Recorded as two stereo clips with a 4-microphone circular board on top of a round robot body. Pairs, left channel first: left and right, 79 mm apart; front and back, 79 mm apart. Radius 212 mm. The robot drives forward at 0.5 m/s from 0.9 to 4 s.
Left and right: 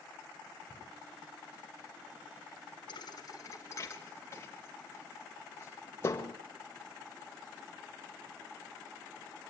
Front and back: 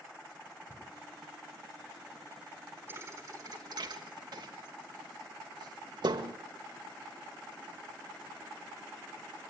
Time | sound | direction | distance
0.7 | a cupboard door | 55° right | 5 m
2.9 | a thud | 120° left | 0.7 m